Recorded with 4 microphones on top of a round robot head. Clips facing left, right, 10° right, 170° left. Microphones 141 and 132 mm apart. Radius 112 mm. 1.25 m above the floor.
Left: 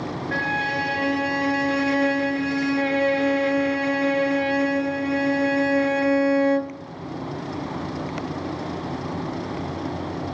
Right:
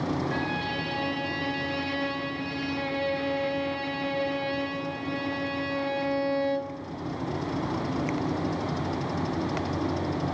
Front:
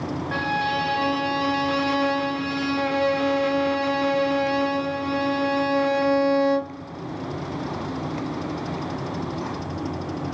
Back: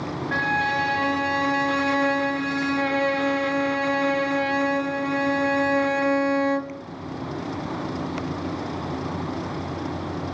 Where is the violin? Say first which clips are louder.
Left 4 dB, even; 65° left, 0.6 m.